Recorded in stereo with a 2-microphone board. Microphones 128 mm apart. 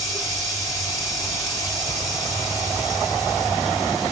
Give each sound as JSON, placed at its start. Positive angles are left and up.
{"t": 0.0, "sound": "running water", "side_deg": -25, "distance_m": 3.5}